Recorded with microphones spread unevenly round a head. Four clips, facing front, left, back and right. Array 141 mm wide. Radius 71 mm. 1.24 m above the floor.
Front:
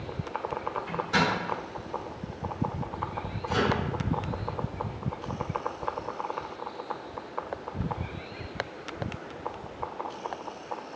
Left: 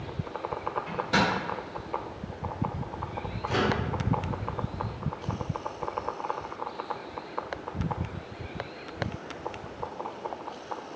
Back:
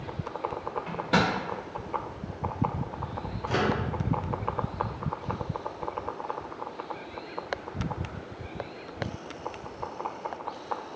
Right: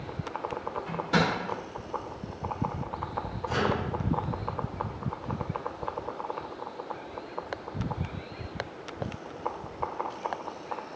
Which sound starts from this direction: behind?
A microwave, at 0.9 s.